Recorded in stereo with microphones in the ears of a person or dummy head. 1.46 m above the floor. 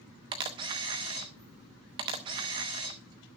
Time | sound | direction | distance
0.3 | a camera shutter | 20° right (ahead or behind) | 0.9 m